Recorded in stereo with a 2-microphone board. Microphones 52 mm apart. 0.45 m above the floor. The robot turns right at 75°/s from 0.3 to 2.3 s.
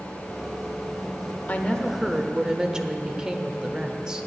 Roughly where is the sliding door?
No sliding door in this recording.